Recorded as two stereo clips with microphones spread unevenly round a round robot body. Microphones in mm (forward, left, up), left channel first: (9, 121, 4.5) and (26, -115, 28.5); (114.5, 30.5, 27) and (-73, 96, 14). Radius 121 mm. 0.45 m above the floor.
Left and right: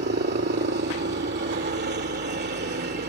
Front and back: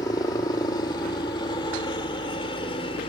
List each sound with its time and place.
0.0 s a helicopter: 85° right; by 3.1 s 70° right